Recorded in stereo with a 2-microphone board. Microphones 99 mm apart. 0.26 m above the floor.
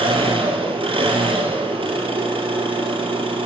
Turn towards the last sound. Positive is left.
turn(degrees=-80)